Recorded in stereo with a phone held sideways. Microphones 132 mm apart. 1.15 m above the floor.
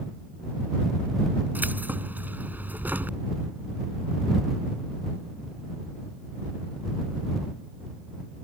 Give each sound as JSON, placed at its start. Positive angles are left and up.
{"t": 1.6, "sound": "keys jangling", "side_deg": -15}